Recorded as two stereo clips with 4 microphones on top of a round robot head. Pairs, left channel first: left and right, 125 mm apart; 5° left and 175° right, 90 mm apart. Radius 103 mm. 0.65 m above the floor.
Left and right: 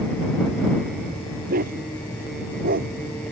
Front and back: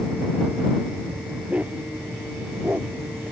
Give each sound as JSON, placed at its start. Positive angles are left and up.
{"t": 1.5, "sound": "a dog barking", "azimuth_deg": -95}